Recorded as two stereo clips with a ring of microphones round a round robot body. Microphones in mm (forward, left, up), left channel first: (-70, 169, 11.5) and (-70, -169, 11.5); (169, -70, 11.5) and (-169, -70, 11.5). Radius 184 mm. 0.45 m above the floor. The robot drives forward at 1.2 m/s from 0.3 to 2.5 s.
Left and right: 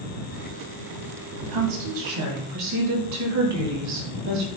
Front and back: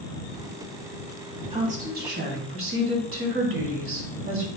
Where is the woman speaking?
105° right, 3 m; by 4.5 s 130° right, 3.5 m.